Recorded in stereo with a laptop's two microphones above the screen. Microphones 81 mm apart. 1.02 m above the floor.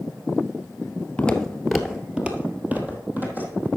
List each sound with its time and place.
1.2 s footsteps: 10° left (ahead or behind), 1.0 m; by 3.7 s 25° right (ahead or behind), 2 m